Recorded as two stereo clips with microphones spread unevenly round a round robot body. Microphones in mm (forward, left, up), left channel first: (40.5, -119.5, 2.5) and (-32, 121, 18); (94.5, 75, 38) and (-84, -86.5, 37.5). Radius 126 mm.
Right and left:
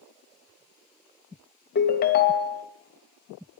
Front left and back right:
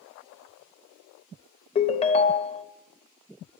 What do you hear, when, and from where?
1.8 s a ringtone: 25° right, 0.7 m